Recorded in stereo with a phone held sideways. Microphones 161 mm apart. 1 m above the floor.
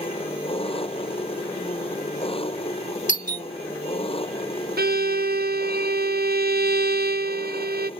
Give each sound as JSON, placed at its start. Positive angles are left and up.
{"t": 0.0, "sound": "an engine running", "side_deg": 35}
{"t": 3.1, "sound": "a doorbell", "side_deg": 50}
{"t": 4.8, "sound": "a violin", "side_deg": -75}